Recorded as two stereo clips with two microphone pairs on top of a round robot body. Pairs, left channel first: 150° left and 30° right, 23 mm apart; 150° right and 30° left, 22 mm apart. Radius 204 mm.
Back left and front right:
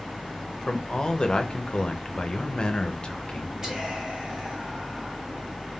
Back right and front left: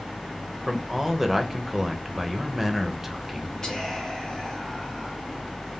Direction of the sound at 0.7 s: 115° left.